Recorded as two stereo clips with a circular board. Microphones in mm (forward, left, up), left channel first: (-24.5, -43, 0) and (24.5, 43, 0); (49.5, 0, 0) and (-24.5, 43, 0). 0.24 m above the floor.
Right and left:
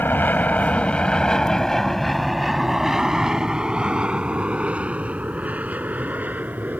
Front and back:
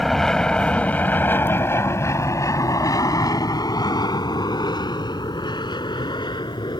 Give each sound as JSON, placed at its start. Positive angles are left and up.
{"t": 0.0, "sound": "an aircraft", "azimuth_deg": -115}